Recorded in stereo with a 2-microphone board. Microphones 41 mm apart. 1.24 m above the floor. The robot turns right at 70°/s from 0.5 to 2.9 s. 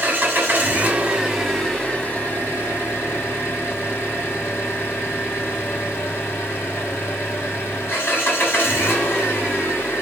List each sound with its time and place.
0.0 s an engine running: 70° right, 2.5 m; by 10.0 s 95° left, 2.5 m